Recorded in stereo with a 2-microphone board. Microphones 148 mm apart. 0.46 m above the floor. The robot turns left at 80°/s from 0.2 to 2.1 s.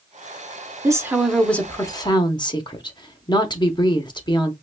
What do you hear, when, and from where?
0.8 s a woman speaking: 140° right, 0.8 m; by 4.5 s 120° left, 0.8 m